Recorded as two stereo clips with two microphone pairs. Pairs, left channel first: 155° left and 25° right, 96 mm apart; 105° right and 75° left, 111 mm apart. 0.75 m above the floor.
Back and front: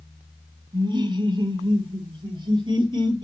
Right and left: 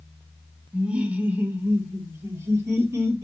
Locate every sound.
0.7 s laughter: 5° right, 1.6 m; by 3.2 s 10° left, 2.5 m